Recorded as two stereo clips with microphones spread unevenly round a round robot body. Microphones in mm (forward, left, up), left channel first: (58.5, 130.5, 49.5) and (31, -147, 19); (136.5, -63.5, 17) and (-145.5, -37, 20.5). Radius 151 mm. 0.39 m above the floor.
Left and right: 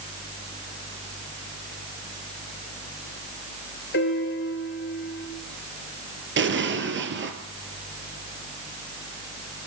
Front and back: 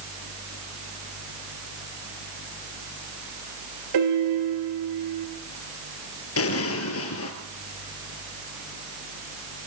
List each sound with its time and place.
3.9 s a piano: 145° left, 5 m
6.4 s an explosion: 45° right, 3.5 m